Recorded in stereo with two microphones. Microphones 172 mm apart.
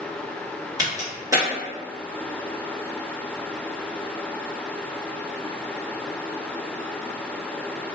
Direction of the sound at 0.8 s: 20° right (ahead or behind).